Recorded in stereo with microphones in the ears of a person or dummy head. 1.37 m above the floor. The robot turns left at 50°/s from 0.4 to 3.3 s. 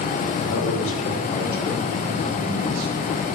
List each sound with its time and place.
0.4 s a man speaking: 75° left, 3.5 m; by 3.1 s 60° right, 3.5 m